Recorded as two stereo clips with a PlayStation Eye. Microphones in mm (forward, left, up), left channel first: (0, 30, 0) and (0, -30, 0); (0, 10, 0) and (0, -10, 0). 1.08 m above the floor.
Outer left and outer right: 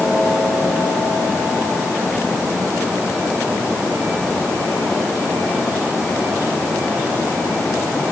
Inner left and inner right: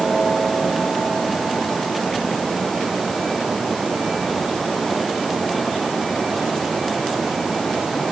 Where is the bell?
No bell in this recording.